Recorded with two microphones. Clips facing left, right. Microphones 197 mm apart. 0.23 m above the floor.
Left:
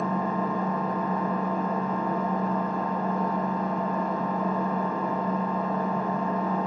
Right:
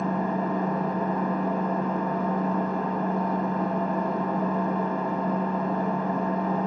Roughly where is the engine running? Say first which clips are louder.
Right 1 dB; right.